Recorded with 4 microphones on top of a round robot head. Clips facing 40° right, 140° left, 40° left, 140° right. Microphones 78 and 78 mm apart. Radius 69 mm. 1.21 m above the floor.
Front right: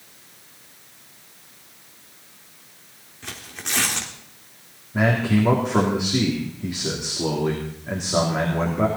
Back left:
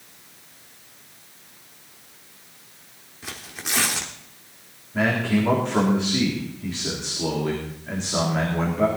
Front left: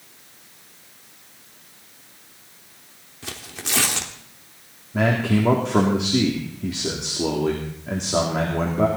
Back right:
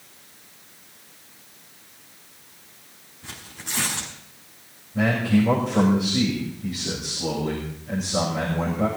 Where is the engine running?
No engine running in this recording.